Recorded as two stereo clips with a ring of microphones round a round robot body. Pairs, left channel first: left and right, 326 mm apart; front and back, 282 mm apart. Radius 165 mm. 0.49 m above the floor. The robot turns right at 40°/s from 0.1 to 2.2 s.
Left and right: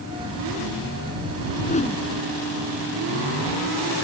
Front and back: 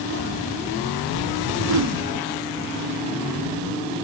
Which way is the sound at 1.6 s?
155° left.